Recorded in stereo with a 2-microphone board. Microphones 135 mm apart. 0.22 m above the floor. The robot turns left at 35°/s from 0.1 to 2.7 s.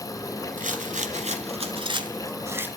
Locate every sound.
0.6 s a rattle: 90° right, 1.3 m; by 2.7 s 165° right, 1.3 m